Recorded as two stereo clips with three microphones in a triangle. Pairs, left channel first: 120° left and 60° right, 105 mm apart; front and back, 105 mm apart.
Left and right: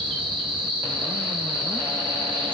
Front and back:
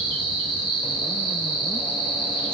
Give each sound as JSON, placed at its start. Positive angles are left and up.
{"t": 0.0, "sound": "an insect", "azimuth_deg": -35, "distance_m": 1.0}